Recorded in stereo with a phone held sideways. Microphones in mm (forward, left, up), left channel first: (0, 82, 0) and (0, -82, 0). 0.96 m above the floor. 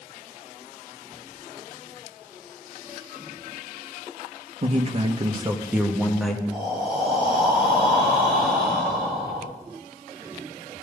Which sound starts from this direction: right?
A man speaking, at 4.6 s.